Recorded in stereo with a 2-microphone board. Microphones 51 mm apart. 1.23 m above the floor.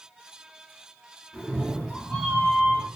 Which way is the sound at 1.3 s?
30° left (ahead or behind).